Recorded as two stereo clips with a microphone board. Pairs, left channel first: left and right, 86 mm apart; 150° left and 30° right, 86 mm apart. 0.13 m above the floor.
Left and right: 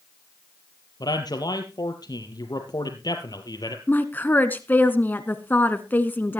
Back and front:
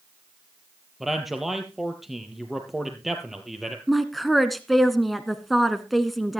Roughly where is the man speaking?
Ahead left.